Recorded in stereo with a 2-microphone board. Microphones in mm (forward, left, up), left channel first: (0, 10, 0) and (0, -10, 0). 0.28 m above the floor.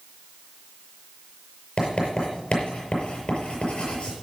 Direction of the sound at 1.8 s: 55° left (ahead or behind).